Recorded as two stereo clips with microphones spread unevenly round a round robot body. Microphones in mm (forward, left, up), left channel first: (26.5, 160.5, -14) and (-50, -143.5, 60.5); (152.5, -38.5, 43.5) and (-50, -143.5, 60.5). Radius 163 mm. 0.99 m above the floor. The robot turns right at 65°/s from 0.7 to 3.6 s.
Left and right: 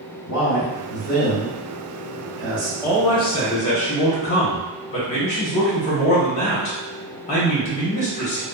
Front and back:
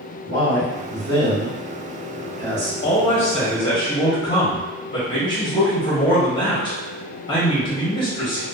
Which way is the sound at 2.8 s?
20° left.